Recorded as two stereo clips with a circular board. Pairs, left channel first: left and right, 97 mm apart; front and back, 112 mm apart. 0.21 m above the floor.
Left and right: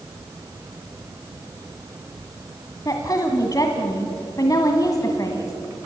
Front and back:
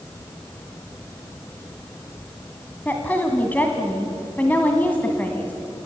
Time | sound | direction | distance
2.9 | a woman speaking | 65° left | 2.0 m